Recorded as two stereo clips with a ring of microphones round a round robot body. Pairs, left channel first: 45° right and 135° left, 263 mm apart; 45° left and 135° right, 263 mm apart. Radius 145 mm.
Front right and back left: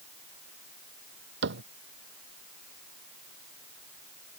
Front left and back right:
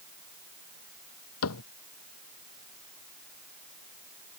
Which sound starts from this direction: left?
A cupboard door, at 1.4 s.